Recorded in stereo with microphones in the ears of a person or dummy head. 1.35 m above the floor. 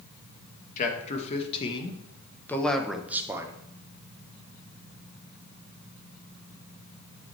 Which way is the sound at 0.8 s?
45° left (ahead or behind).